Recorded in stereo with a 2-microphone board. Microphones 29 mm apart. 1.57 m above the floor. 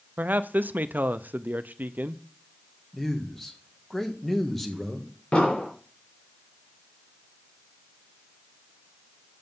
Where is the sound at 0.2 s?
80° right, 0.6 m.